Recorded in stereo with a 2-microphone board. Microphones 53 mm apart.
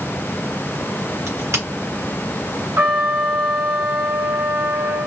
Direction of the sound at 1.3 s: 60° right (ahead or behind).